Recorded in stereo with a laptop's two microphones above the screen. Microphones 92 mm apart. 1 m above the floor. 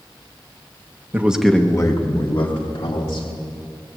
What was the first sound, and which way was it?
A man speaking, 20° right (ahead or behind).